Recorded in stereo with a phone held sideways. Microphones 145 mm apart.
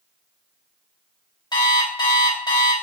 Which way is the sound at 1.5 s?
30° left (ahead or behind).